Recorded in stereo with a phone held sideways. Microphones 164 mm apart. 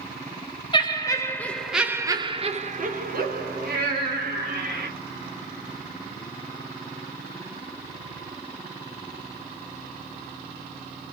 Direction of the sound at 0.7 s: 30° left (ahead or behind).